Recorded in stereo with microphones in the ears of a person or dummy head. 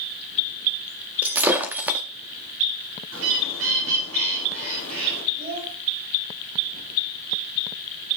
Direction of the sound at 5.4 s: 40° right (ahead or behind).